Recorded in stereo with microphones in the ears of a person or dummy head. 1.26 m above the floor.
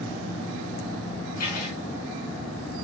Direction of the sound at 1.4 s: 45° left (ahead or behind).